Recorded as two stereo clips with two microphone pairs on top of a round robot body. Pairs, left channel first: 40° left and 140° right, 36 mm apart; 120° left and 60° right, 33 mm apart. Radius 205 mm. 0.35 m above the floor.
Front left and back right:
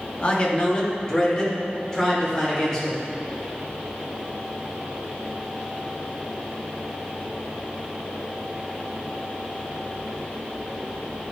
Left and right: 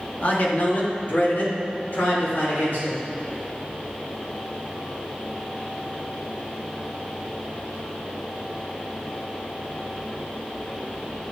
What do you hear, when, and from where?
0.2 s a man speaking: 95° left, 1.6 m; by 3.0 s 115° left, 3.5 m